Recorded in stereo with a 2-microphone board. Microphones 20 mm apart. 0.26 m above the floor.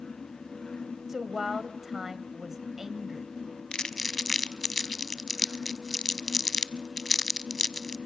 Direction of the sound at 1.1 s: 20° right (ahead or behind).